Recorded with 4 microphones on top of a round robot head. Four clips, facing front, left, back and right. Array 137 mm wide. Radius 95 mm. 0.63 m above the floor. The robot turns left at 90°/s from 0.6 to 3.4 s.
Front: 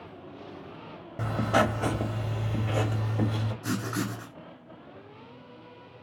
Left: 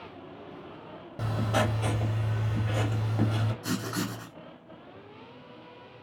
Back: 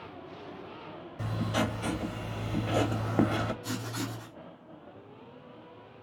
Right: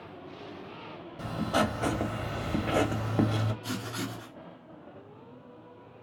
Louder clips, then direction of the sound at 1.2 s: Even, front 6 dB; 25° left.